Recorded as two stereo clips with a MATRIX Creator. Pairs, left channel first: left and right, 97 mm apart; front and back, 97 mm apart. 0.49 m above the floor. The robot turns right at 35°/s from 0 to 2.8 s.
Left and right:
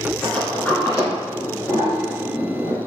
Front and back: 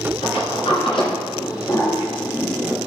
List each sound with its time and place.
0.2 s a sliding door: straight ahead, 1.5 m; by 2.8 s 90° left, 1.5 m